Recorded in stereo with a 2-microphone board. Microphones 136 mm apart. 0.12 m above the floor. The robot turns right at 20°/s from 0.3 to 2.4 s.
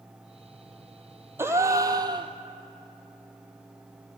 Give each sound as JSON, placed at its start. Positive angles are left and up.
{"t": 1.4, "sound": "a gasp", "side_deg": -20, "distance_m": 0.7}